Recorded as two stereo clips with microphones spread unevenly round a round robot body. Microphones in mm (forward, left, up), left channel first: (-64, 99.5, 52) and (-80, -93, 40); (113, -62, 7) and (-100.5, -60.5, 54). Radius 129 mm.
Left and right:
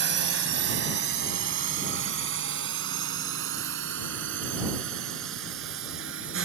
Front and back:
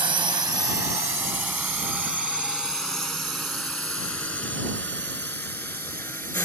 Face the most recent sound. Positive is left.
turn(degrees=-80)